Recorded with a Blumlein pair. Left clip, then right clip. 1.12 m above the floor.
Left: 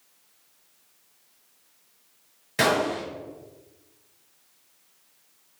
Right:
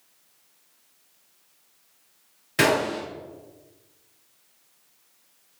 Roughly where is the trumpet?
No trumpet in this recording.